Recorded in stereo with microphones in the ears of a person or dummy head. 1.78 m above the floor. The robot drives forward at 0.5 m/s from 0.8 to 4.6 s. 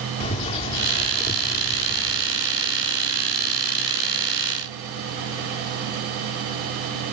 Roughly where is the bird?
Left.